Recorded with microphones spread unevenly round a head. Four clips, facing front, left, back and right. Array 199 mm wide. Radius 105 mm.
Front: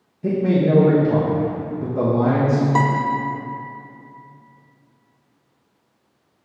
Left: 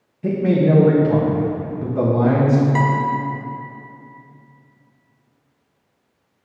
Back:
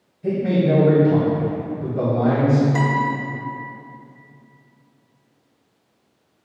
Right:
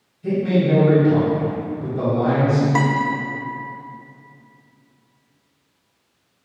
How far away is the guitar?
About 1.4 m.